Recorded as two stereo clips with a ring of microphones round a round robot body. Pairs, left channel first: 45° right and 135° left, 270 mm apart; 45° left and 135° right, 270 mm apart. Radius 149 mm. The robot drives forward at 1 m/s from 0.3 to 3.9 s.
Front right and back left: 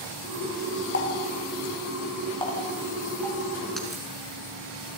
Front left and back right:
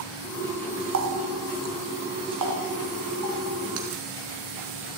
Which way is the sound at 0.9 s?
95° right.